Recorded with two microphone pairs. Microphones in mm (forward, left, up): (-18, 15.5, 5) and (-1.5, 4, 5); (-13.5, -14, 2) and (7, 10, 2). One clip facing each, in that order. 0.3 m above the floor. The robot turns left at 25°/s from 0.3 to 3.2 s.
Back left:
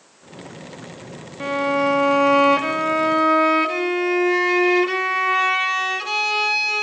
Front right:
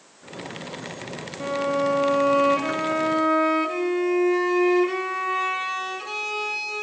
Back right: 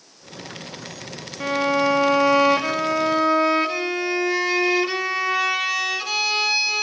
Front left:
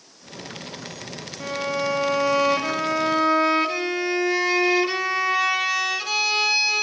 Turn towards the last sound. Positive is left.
turn(degrees=145)